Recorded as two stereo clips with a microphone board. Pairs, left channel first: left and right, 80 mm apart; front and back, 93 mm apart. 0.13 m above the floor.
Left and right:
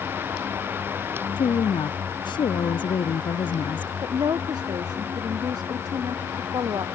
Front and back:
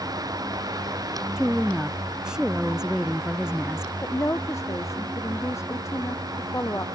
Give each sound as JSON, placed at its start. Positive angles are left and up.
{"t": 1.4, "sound": "a woman speaking", "azimuth_deg": 95}
{"t": 4.0, "sound": "a woman speaking", "azimuth_deg": -60}